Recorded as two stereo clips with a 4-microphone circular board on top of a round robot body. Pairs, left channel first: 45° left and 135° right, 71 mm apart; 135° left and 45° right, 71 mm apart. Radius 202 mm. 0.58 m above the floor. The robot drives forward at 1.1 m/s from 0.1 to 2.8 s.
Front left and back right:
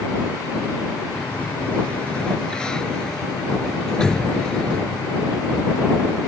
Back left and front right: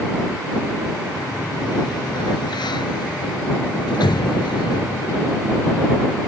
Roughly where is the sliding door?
Behind left.